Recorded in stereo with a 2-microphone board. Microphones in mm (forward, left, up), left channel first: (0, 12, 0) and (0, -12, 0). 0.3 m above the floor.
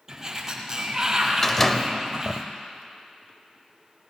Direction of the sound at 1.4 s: 15° left (ahead or behind).